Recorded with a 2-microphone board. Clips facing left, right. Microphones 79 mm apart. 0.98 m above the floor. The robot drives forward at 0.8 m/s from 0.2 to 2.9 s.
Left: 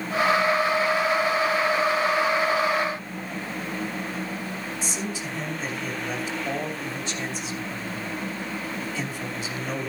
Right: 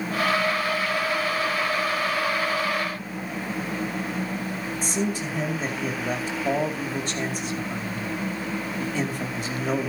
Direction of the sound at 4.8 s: 50° right (ahead or behind).